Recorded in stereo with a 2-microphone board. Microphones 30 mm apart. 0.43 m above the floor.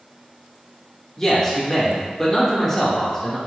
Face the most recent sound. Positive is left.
turn(degrees=20)  # may be behind; listen again after turning